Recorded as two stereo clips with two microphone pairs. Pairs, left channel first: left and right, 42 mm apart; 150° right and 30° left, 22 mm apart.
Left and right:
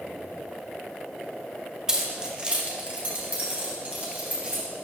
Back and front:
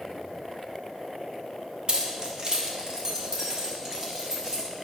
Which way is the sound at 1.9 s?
10° right.